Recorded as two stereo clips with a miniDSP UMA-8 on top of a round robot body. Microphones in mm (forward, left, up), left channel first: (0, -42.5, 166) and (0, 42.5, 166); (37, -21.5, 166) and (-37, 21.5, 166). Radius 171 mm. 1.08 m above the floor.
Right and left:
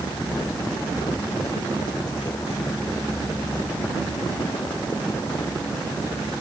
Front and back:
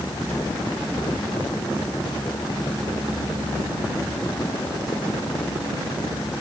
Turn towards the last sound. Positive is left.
No sound to turn to.